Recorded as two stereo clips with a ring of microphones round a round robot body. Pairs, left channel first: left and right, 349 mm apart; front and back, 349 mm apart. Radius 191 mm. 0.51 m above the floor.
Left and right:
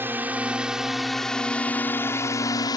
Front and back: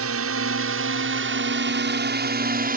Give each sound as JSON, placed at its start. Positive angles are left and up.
{"t": 0.0, "sound": "a drone", "azimuth_deg": -170}